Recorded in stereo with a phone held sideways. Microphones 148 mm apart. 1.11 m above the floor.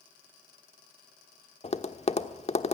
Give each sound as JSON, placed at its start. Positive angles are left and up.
{"t": 1.6, "sound": "tapping", "side_deg": 45, "distance_m": 1.2}